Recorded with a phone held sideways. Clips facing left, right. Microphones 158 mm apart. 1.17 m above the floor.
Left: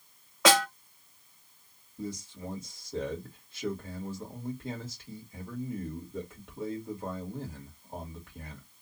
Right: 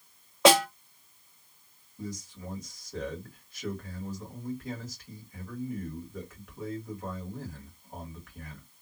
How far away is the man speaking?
About 1.8 m.